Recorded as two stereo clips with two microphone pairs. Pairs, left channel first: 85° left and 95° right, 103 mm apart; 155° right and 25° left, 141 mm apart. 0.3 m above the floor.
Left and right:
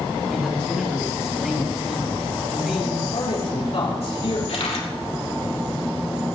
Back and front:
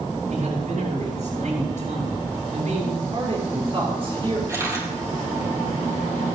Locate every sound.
0.3 s a man speaking: 5° right, 6 m
3.1 s a man speaking: 70° left, 5.5 m
4.5 s a camera shutter: 95° left, 4.5 m